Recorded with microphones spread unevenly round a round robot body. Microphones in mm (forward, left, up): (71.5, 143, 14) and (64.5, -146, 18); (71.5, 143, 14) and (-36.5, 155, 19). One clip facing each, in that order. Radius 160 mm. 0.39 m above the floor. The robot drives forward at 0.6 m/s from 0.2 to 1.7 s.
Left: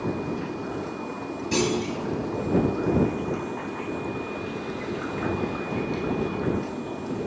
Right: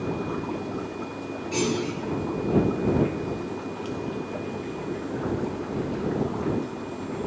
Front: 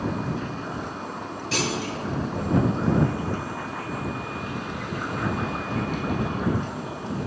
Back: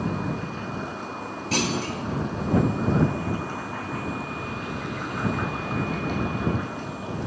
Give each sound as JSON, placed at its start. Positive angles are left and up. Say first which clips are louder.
{"t": 1.5, "sound": "a clunk", "louder": "left 1 dB, back 1 dB", "azimuth_deg": 125, "distance_m": 0.6}